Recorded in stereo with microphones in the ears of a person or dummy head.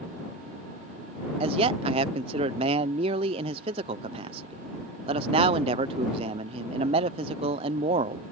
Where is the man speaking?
35° right (ahead or behind).